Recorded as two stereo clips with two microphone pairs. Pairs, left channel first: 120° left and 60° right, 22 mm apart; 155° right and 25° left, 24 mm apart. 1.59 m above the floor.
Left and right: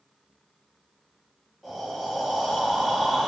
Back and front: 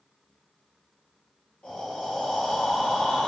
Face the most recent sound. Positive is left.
turn(degrees=-140)